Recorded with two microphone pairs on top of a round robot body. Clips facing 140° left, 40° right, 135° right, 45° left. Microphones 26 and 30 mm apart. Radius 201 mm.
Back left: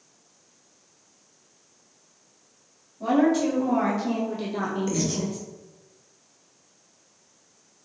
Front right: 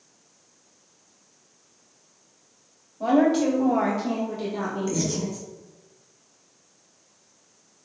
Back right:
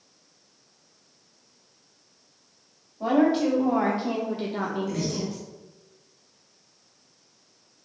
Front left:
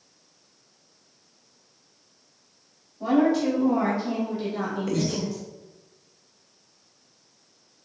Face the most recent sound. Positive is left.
turn(degrees=55)